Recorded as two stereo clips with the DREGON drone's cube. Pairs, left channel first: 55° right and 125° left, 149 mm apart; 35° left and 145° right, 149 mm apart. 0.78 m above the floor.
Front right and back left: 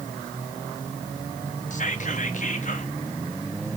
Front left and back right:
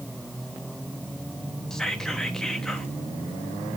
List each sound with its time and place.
1.7 s whispering: 50° right, 1.0 m